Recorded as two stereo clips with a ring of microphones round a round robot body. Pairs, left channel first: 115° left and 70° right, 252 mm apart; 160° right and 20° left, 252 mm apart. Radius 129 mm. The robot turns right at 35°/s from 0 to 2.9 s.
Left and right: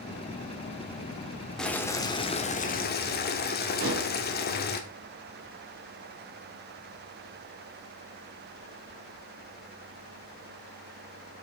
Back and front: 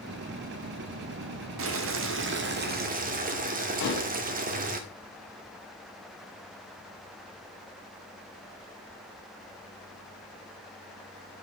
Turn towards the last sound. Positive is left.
turn(degrees=-115)